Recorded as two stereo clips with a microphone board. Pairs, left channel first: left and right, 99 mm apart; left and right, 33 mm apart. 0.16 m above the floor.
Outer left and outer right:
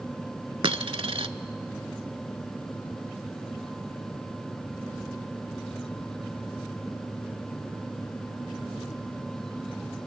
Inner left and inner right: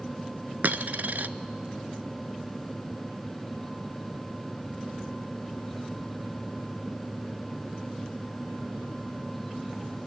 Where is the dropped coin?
60° right (ahead or behind), 0.6 m.